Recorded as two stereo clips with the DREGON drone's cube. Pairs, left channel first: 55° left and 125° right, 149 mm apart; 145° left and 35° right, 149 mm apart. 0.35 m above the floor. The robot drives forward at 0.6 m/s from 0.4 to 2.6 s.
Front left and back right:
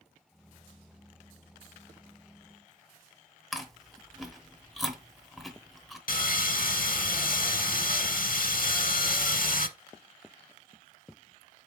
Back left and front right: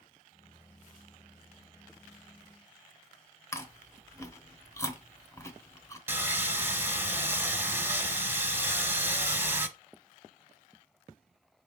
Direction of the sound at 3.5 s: 145° left.